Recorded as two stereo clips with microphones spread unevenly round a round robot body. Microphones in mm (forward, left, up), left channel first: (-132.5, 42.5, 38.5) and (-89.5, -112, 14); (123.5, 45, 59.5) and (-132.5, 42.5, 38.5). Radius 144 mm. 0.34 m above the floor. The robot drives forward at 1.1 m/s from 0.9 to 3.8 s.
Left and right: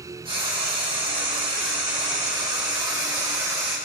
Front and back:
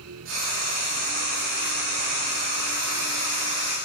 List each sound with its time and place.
0.2 s frying: 130° right, 9 m; by 3.8 s 145° right, 11 m